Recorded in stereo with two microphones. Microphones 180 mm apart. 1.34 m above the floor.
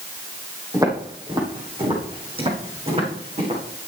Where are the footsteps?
20° right (ahead or behind), 4 m; by 3.6 s 35° right (ahead or behind), 5.5 m.